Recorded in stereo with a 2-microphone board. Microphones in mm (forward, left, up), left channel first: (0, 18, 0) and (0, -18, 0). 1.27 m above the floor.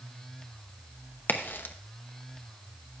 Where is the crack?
65° left (ahead or behind), 0.8 m.